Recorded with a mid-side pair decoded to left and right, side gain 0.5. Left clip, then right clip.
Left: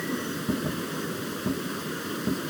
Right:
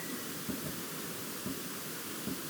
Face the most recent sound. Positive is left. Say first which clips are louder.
# left 10 dB
turn(degrees=60)